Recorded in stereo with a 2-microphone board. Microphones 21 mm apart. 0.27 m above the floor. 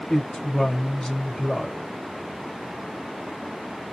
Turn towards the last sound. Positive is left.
turn(degrees=25)  # may be behind; listen again after turning